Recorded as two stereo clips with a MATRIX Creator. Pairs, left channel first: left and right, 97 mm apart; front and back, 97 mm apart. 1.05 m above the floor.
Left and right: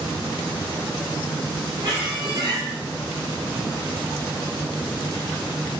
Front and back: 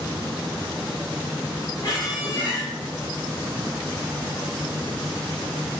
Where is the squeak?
45° right, 1.4 m.